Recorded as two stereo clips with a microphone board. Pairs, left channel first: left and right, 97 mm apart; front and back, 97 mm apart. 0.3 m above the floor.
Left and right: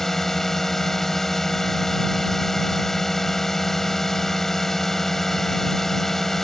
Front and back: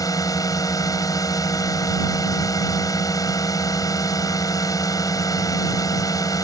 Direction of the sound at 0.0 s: 5° left.